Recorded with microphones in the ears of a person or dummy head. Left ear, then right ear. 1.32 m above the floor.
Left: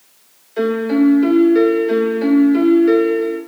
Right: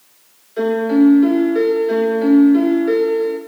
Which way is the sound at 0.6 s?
20° left (ahead or behind).